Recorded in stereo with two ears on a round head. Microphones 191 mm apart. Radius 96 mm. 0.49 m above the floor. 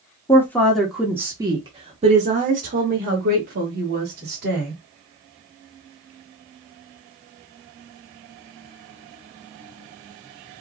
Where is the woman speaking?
15° left (ahead or behind), 1.3 m; by 4.7 s 50° right (ahead or behind), 3 m.